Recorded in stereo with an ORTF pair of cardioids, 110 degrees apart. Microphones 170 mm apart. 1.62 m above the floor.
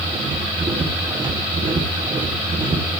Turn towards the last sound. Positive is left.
turn(degrees=-25)